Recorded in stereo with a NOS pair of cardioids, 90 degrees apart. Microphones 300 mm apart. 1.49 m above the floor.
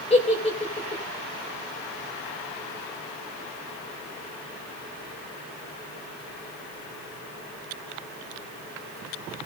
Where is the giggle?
20° left, 9.5 m.